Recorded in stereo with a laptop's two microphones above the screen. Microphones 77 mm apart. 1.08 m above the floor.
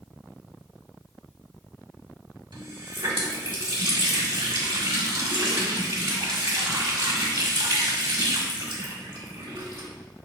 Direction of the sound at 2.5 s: 75° right (ahead or behind).